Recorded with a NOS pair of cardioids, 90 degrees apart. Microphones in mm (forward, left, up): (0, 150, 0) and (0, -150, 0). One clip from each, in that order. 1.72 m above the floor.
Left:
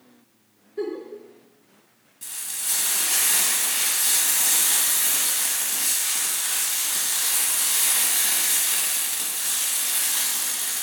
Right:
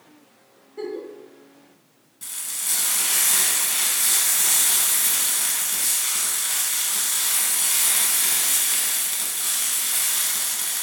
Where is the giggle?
Straight ahead, 0.9 m.